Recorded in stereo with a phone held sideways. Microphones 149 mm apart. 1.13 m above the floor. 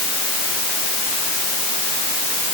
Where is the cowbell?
No cowbell in this recording.